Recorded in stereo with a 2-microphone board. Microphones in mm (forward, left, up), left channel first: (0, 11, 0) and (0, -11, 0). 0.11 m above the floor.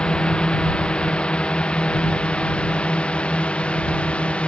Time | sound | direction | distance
0.0 | a drone | 50° left (ahead or behind) | ?